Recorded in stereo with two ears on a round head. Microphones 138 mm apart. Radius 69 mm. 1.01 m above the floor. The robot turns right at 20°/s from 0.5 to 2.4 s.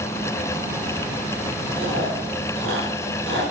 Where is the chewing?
75° right (ahead or behind), 4.5 m; by 3.4 s 60° right (ahead or behind), 4.5 m.